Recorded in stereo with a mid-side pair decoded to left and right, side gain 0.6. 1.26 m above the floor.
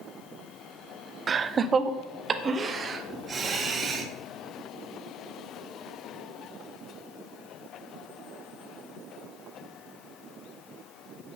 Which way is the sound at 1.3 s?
35° right.